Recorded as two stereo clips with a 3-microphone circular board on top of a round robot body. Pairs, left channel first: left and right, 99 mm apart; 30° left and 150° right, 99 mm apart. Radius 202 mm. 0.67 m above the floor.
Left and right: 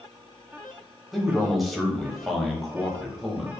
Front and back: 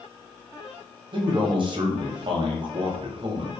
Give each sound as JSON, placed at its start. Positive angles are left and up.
{"t": 1.1, "sound": "a man speaking", "azimuth_deg": 180, "distance_m": 0.9}